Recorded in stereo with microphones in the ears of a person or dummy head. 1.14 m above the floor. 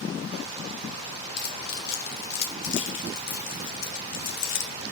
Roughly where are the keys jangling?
Left.